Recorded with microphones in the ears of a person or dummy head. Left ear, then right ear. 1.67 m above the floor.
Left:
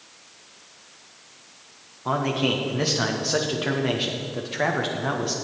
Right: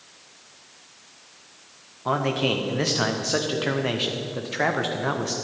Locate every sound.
2.0 s a man speaking: 5° right (ahead or behind), 0.8 m